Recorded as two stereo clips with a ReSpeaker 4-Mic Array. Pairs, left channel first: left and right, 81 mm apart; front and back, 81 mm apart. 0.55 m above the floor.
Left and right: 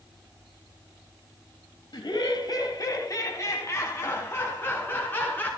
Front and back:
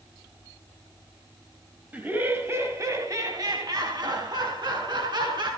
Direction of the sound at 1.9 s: 110° left.